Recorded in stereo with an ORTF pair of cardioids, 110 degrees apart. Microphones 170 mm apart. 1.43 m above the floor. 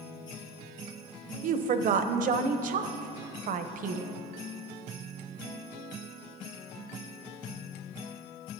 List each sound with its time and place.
1.4 s a woman speaking: 50° right, 0.6 m